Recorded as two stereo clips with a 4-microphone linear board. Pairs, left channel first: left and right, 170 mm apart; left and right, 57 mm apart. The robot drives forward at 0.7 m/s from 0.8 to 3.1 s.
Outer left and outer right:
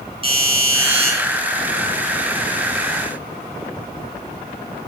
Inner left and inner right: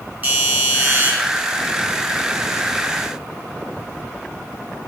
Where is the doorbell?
35° right (ahead or behind), 3 m.